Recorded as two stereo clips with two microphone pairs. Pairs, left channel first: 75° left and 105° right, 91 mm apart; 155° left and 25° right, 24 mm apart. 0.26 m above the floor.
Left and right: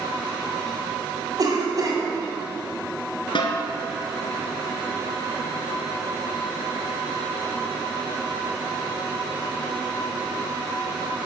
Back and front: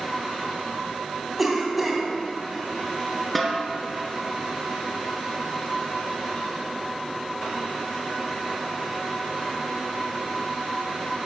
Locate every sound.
1.4 s a cough: 105° right, 2.0 m
3.4 s a snare drum: 70° left, 1.1 m